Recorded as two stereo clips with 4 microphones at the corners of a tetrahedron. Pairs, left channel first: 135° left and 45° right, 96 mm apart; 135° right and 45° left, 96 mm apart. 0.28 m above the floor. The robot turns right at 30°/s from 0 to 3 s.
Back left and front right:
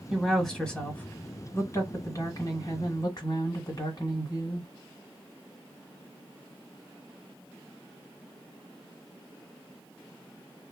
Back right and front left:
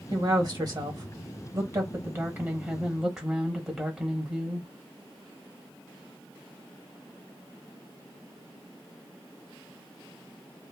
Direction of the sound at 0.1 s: 40° left.